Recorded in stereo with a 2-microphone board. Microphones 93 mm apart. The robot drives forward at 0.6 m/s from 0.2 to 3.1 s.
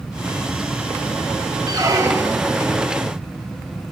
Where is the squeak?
45° right (ahead or behind), 0.6 m; by 2.6 s 25° right (ahead or behind), 1.1 m.